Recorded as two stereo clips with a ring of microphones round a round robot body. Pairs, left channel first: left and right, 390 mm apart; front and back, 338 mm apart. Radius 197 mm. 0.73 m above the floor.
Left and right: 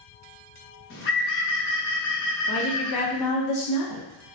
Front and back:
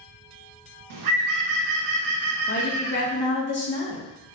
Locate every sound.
0.9 s a bird: 150° left, 0.8 m
2.5 s a woman speaking: 55° left, 1.2 m